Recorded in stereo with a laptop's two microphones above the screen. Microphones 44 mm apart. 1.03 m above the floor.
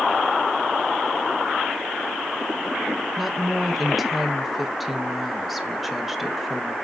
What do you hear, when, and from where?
3.2 s a woman speaking: 5° right (ahead or behind), 0.6 m